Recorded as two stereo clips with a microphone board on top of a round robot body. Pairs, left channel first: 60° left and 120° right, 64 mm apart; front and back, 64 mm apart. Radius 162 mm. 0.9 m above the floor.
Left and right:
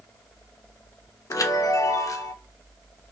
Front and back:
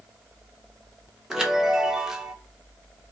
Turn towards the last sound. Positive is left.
turn(degrees=95)